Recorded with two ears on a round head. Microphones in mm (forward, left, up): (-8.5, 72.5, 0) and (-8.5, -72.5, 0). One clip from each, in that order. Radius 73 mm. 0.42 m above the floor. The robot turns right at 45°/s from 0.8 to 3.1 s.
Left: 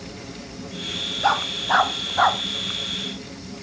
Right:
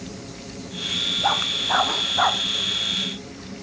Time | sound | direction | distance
1.2 | a dog barking | 30° left (ahead or behind) | ?